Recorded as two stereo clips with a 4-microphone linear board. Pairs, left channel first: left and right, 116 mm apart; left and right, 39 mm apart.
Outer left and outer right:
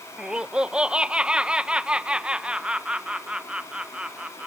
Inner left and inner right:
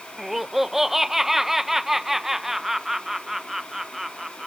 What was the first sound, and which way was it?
Laughter, 10° right (ahead or behind).